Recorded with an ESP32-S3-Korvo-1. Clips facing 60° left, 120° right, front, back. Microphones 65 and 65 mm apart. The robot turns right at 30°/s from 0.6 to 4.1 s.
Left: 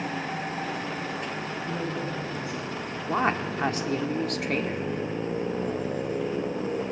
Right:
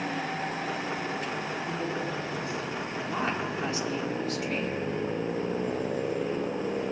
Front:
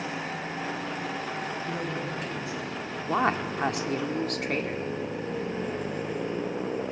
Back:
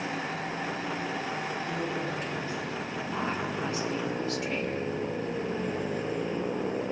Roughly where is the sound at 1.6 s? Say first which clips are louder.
Left 1 dB, even; ahead right.